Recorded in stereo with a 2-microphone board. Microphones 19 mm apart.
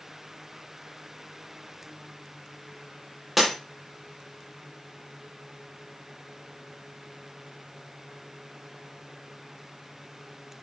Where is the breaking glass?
Centre (ahead or behind), 6 m.